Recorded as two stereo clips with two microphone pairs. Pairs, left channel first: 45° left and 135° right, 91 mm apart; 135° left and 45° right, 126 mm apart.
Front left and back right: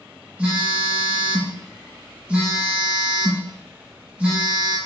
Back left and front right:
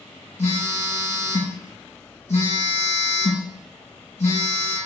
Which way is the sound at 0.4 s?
150° left.